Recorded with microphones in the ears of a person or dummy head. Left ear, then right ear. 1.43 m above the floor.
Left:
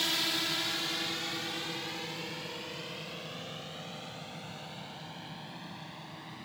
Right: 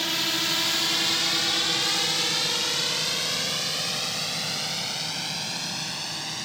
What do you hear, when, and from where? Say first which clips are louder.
0.0 s a drone: right 5 dB; 5° left (ahead or behind); by 6.5 s 70° right (ahead or behind)